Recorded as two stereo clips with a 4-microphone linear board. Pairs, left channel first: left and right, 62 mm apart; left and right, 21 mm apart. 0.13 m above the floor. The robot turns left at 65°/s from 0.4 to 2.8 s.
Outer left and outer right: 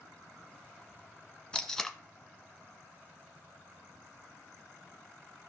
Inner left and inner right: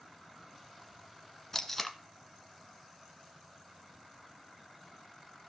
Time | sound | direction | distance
1.5 | tape being pulled | 15° left (ahead or behind) | 1.1 m